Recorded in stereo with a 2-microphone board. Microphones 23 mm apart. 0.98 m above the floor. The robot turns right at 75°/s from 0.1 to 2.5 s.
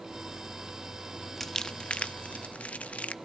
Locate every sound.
1.4 s crumpling: 15° left (ahead or behind), 0.6 m; by 3.1 s 80° left, 0.6 m